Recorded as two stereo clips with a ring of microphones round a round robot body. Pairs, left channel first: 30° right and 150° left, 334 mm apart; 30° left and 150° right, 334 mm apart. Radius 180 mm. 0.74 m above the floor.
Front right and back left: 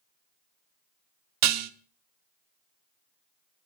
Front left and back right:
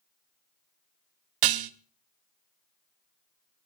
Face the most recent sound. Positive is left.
turn(degrees=-165)